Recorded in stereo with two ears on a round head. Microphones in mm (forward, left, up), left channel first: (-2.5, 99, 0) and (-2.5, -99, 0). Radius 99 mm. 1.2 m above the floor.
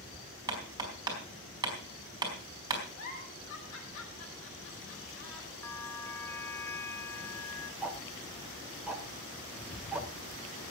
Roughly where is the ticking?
Centre.